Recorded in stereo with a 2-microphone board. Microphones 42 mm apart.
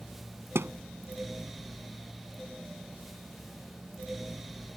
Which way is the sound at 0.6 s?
75° right (ahead or behind).